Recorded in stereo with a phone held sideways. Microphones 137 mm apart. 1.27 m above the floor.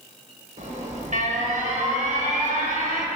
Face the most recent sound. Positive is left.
turn(degrees=-60)  # may be behind; listen again after turning